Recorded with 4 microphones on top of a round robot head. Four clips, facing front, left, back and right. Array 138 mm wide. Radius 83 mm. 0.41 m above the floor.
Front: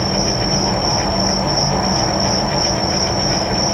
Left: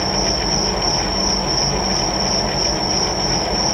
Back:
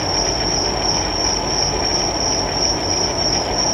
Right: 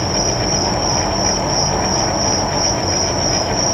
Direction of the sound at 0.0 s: 55° right.